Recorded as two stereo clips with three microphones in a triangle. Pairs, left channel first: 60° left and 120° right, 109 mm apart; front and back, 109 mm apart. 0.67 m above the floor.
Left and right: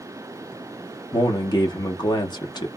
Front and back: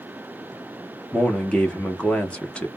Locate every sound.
1.1 s a man speaking: 75° left, 0.9 m